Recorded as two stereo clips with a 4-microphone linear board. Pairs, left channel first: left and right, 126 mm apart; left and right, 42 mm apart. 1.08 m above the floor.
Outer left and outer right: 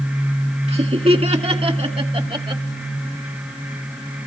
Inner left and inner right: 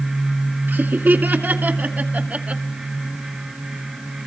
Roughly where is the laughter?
Right.